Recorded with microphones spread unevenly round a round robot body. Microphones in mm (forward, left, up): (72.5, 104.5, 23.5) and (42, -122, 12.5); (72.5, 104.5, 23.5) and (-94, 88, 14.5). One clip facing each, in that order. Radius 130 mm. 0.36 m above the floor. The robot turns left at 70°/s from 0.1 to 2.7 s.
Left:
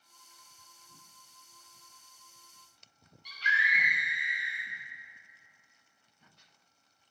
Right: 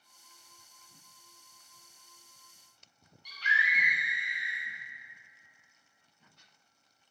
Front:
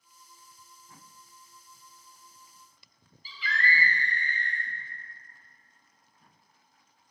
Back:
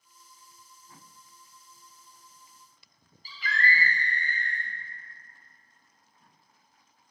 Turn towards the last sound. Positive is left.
turn(degrees=150)